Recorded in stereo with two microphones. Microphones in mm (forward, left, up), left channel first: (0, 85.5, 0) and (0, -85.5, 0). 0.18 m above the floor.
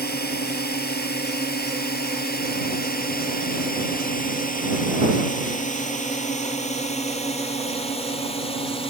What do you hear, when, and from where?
0.0 s a drone: 70° left (ahead or behind); by 8.9 s 35° left (ahead or behind)